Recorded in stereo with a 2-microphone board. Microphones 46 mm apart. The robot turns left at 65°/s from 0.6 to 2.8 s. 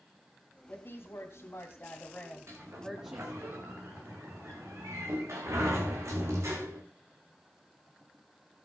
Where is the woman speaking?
120° left, 2 m; by 3.5 s 15° right, 2 m.